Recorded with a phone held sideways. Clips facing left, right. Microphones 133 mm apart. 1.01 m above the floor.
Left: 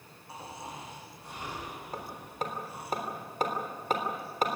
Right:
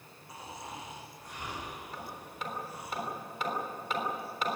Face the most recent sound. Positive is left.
turn(degrees=45)  # may be behind; listen again after turning